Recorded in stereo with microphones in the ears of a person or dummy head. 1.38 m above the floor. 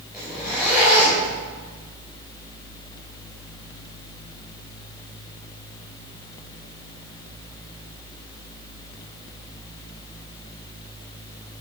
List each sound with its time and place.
0.1 s a zipper: 5° right (ahead or behind), 4 m